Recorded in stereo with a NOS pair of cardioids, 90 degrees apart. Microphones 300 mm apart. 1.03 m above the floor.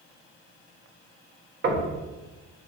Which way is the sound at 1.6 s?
40° right.